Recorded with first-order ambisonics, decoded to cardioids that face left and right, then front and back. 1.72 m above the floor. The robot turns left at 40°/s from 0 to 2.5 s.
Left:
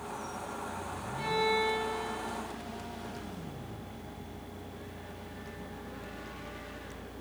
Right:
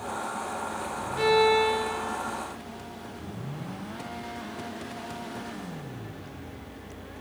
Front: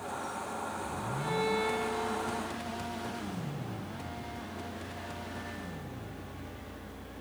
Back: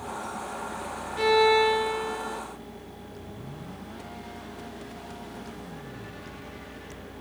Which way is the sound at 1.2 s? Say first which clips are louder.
Right 8 dB, back 12 dB; 140° right.